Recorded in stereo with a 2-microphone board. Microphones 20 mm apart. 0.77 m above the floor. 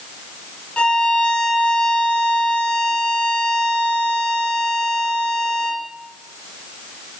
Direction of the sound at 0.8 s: 80° left.